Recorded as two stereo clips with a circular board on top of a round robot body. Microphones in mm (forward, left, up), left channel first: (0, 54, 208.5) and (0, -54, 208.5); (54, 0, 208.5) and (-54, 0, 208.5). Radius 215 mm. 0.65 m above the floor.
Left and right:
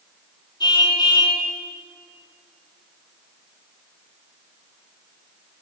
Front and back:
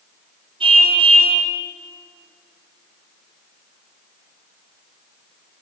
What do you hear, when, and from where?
0.6 s a car horn: 145° left, 5 m